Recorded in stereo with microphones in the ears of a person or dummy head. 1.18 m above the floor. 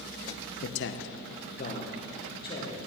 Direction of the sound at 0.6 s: 55° left (ahead or behind).